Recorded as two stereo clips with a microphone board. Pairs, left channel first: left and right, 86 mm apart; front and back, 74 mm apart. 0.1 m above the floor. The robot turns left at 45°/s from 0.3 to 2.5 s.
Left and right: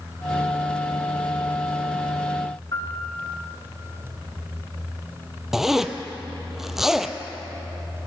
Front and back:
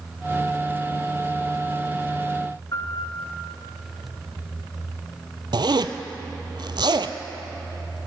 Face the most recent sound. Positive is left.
turn(degrees=-175)